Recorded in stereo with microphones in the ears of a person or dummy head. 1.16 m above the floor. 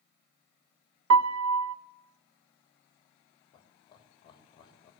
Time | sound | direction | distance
1.1 | a piano | 80° right | 0.6 m
3.5 | laughter | 25° left (ahead or behind) | 3 m